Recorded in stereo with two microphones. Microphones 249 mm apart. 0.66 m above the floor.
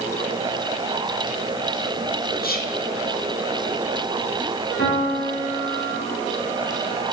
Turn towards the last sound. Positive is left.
turn(degrees=50)  # may be behind; listen again after turning